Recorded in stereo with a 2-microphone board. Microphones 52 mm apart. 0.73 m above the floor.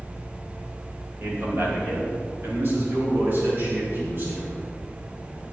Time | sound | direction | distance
1.2 | a man speaking | 45° right (ahead or behind) | 3 m